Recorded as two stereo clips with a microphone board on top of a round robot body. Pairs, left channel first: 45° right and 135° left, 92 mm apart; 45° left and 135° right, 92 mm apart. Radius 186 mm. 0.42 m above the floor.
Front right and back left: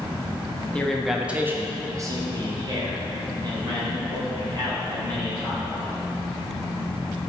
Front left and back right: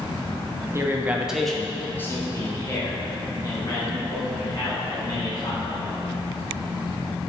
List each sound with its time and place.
0.7 s a man speaking: 110° right, 1.1 m; by 5.9 s 95° left, 4.5 m